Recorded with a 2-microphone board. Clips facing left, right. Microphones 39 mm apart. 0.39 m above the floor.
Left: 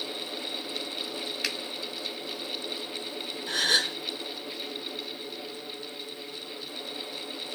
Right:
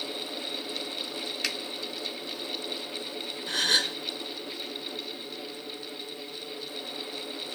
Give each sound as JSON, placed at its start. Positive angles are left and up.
{"t": 1.4, "sound": "a finger snap", "side_deg": 5, "distance_m": 1.0}
{"t": 3.5, "sound": "a gasp", "side_deg": 0, "distance_m": 1.5}